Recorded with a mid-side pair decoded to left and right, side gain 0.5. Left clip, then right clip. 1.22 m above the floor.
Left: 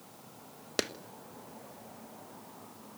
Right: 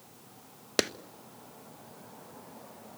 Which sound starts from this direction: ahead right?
A clap, at 0.8 s.